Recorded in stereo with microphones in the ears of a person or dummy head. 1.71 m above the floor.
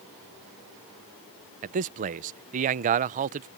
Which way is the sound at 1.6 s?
40° right (ahead or behind).